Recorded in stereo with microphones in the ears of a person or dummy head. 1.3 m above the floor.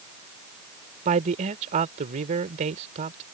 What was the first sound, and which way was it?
A man speaking, 40° right (ahead or behind).